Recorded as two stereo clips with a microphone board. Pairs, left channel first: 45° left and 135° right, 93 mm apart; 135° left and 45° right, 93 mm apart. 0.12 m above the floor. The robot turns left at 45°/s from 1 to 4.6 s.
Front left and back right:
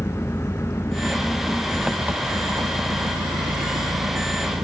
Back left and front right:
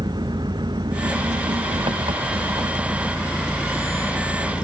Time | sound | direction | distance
0.0 | an engine running | 15° right | ?